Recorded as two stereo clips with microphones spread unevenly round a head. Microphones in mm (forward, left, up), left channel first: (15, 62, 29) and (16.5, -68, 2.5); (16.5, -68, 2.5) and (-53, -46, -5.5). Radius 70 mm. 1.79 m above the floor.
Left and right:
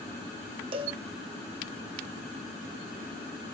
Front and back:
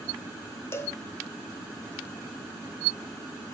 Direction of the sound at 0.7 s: 40° right.